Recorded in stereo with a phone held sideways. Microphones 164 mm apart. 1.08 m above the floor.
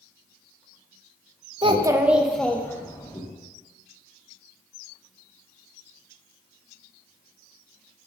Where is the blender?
I don't hear a blender.